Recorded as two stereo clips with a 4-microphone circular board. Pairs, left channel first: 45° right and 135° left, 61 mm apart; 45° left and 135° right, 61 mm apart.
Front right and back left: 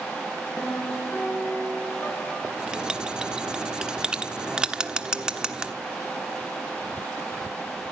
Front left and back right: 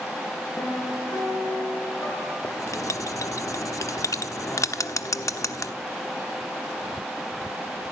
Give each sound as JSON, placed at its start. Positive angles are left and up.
{"t": 0.6, "sound": "a piano", "azimuth_deg": 10, "distance_m": 5.0}
{"t": 2.4, "sound": "writing", "azimuth_deg": 60, "distance_m": 1.1}